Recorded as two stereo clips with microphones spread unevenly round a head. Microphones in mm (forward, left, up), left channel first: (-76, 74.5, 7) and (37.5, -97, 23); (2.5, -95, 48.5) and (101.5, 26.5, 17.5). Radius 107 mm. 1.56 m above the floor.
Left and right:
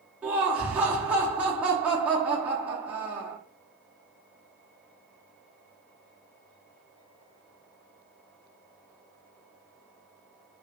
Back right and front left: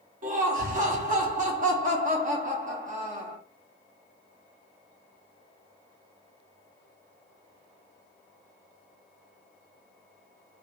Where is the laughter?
20° left, 0.6 m.